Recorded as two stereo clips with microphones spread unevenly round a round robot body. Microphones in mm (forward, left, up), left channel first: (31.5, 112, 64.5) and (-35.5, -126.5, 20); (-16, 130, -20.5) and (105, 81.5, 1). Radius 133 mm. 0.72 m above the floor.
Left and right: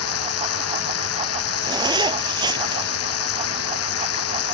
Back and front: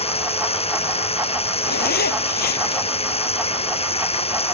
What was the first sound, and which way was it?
Running water, 110° left.